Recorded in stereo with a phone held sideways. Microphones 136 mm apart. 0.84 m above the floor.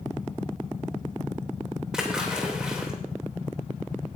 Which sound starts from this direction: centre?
A splash, at 1.9 s.